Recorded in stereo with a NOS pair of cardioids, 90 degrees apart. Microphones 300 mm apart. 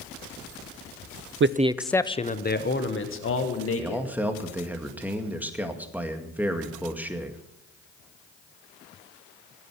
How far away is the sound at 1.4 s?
About 0.5 m.